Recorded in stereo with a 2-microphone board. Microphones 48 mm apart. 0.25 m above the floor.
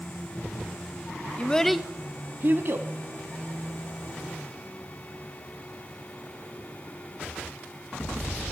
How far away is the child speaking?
About 0.7 m.